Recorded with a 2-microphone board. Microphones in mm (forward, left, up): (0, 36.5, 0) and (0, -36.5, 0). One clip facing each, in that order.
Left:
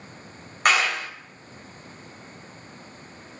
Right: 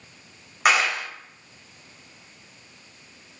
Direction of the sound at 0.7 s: 5° right (ahead or behind).